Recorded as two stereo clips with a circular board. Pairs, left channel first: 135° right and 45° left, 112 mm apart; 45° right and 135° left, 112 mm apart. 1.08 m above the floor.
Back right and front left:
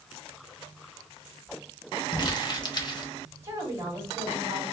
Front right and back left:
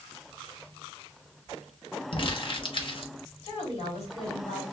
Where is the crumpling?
85° right, 0.9 m.